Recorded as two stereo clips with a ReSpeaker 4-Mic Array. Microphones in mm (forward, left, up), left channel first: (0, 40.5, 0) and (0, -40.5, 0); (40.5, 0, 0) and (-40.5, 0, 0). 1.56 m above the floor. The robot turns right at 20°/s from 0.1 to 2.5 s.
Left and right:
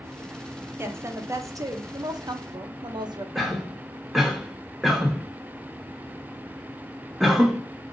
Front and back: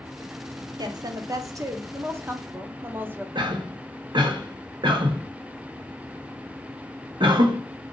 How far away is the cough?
About 0.8 m.